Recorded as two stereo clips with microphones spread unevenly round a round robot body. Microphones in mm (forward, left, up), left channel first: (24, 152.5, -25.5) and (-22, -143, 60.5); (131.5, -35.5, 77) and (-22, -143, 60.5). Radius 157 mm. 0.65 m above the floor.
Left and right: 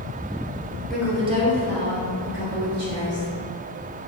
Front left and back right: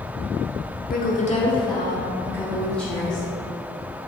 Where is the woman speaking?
10° left, 0.8 m; by 3.3 s 55° right, 2 m.